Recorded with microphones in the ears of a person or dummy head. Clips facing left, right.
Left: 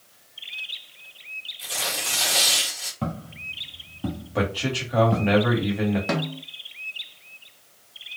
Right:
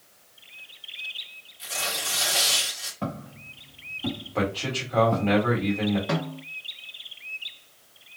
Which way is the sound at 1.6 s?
25° left (ahead or behind).